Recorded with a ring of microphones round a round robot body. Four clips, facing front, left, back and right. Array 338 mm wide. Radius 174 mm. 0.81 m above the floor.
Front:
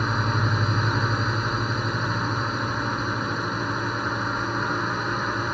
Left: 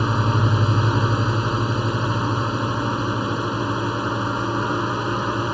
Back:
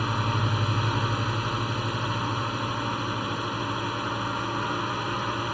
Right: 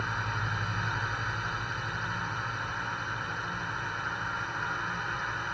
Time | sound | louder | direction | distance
0.0 | a drone | left 12 dB, front 3 dB | 80° left | ?